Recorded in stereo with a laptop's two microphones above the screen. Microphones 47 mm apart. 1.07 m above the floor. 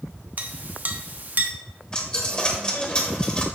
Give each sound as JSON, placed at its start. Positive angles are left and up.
{"t": 0.4, "sound": "a clink", "side_deg": -35, "distance_m": 0.7}
{"t": 1.9, "sound": "a dropped coin", "side_deg": 20, "distance_m": 1.1}